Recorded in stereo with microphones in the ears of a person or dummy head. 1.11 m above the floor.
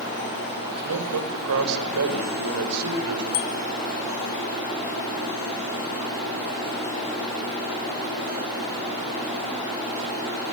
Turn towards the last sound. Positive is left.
turn(degrees=85)